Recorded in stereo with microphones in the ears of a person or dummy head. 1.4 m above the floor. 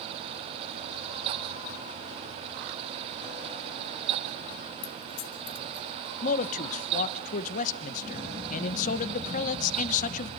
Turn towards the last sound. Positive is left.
turn(degrees=45)  # may be behind; listen again after turning